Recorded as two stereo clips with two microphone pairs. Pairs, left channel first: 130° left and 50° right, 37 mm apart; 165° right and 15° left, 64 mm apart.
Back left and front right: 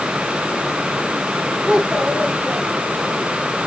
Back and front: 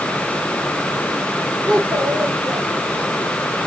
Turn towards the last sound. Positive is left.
turn(degrees=25)